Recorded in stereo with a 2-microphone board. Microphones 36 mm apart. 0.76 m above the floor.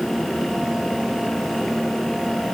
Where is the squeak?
I don't hear a squeak.